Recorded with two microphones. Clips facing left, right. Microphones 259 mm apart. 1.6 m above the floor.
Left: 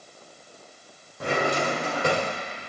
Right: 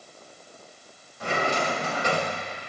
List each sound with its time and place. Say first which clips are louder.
1.2 s a drawer: left 2 dB; 55° left (ahead or behind), 2 m